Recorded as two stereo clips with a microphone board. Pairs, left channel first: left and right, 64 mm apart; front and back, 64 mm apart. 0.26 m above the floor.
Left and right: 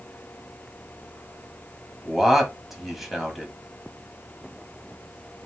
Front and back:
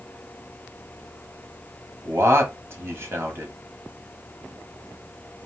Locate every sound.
2.0 s a man speaking: 175° right, 1.4 m